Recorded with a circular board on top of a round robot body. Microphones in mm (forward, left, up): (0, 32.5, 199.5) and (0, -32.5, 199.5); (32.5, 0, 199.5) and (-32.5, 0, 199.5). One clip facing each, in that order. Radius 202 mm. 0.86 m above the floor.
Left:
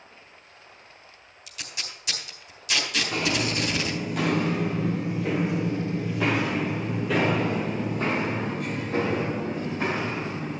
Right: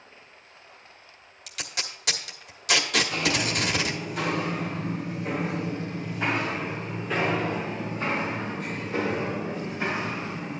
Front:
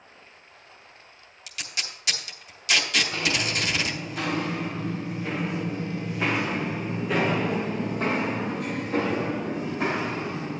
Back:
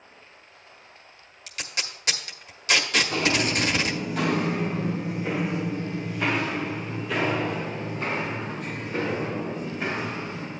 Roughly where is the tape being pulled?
Behind right.